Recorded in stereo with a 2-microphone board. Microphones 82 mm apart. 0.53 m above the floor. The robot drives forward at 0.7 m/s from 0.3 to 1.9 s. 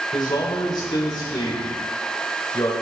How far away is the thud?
No thud in this recording.